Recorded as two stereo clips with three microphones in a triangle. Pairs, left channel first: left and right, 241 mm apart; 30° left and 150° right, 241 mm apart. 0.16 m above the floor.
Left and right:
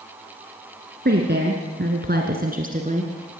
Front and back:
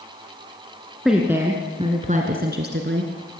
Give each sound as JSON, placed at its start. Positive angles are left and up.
{"t": 1.1, "sound": "a woman speaking", "azimuth_deg": -60, "distance_m": 2.0}